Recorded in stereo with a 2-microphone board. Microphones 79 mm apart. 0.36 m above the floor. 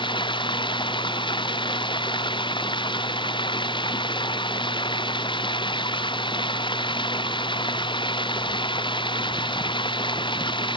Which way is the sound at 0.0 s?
85° left.